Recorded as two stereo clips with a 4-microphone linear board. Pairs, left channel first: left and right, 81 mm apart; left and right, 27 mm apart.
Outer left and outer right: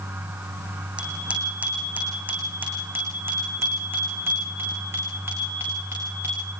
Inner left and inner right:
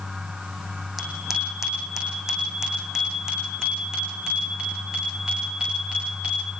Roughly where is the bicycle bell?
Centre.